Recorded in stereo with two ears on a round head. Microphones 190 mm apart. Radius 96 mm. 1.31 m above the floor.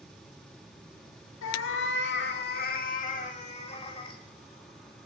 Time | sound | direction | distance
1.4 | a cat meowing | 65° left (ahead or behind) | 1.4 m